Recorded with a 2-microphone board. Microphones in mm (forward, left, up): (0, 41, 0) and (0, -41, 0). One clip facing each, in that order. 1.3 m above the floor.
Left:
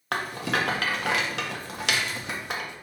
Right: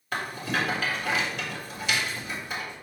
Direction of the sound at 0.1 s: 75° left (ahead or behind).